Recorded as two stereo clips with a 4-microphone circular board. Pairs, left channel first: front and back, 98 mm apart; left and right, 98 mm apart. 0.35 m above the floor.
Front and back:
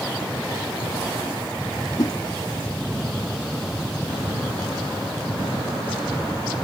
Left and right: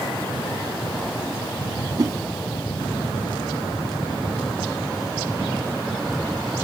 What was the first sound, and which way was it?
A whoosh, 45° right.